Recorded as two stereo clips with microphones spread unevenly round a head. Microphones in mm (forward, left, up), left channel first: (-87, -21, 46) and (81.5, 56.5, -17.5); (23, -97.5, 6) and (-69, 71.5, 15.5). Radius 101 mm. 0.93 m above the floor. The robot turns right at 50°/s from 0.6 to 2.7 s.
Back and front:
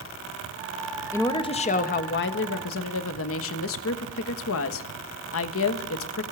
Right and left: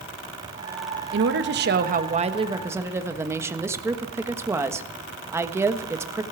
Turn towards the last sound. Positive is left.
turn(degrees=-165)